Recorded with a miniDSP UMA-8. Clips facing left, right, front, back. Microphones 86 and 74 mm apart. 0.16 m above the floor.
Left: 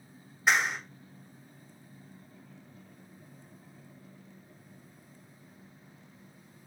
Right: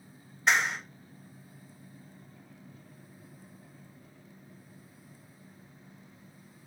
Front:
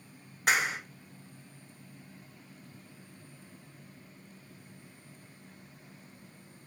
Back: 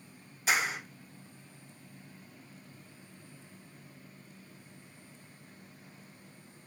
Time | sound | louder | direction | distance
0.5 | a clap | even, front 2 dB | 5° left | 1.5 m